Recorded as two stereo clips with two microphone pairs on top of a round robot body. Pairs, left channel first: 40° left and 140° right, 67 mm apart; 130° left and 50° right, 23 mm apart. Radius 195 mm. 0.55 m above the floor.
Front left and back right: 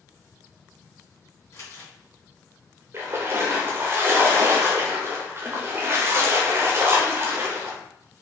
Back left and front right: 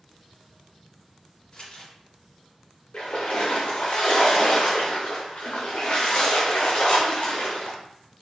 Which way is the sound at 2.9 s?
165° left.